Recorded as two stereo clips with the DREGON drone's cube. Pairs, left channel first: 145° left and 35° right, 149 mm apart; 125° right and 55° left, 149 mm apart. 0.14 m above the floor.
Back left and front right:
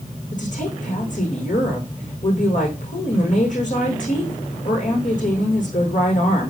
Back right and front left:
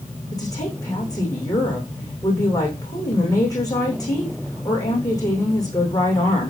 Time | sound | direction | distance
0.3 | a woman speaking | 175° left | 7 m